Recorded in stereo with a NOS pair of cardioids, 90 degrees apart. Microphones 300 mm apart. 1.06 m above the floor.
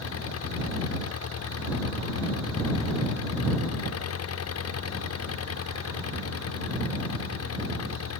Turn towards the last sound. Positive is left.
turn(degrees=55)